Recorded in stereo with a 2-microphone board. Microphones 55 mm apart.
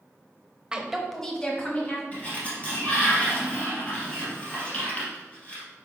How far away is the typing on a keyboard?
I don't hear typing on a keyboard.